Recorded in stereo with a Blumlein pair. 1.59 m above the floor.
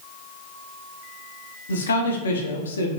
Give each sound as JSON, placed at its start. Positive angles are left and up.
{"t": 1.7, "sound": "a man speaking", "azimuth_deg": 70, "distance_m": 0.6}